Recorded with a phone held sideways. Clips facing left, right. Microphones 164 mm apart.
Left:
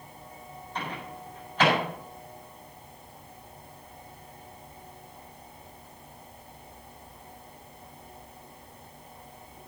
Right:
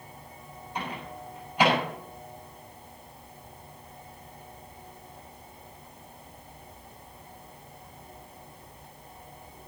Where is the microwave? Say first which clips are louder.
Right 1 dB; 10° right (ahead or behind), 8 m.